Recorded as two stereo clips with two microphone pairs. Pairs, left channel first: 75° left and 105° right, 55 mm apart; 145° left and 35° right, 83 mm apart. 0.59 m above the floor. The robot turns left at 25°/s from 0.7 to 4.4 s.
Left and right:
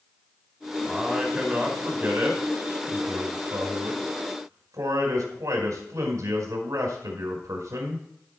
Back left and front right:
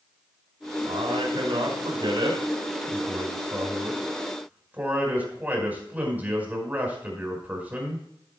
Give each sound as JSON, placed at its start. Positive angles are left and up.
{"t": 0.9, "sound": "a man speaking", "azimuth_deg": -20, "distance_m": 4.5}